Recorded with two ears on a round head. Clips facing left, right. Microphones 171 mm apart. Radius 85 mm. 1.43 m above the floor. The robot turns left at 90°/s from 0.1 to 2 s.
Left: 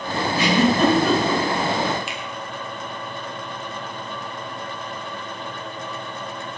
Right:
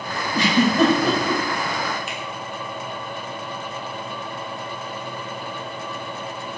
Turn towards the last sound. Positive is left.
turn(degrees=65)  # may be behind; listen again after turning